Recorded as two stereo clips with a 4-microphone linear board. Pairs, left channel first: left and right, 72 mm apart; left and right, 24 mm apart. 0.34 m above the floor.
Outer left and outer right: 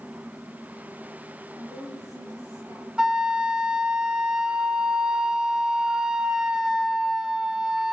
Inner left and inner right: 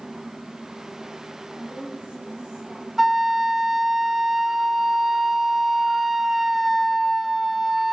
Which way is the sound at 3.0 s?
10° right (ahead or behind).